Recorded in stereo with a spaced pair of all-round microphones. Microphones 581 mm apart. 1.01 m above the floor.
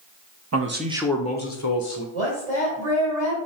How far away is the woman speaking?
About 2.5 m.